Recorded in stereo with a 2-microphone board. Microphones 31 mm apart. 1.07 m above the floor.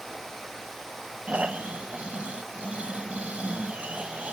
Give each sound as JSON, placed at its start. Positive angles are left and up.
{"t": 1.3, "sound": "snoring", "side_deg": -45, "distance_m": 1.5}